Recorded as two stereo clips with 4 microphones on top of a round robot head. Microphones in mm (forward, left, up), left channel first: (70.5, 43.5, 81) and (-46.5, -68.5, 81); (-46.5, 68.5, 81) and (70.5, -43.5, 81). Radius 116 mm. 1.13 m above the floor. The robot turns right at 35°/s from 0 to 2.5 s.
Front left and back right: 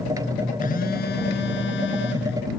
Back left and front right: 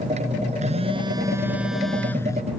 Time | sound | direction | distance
0.6 | a phone buzzing | 5° left | ?